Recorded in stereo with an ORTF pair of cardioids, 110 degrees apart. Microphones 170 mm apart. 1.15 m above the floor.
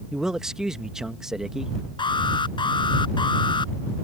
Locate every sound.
0.1 s a man speaking: 5° right
2.0 s an alarm: 25° left